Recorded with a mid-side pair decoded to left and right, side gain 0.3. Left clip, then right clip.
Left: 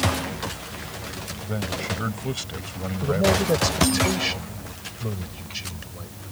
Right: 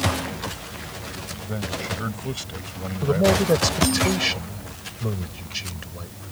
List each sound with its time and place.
1.4 s a man speaking: 15° left
3.0 s a man speaking: 30° right